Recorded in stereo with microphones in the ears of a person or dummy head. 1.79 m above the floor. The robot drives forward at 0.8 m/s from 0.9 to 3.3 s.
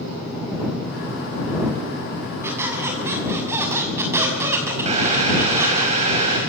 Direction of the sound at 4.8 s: 35° right (ahead or behind).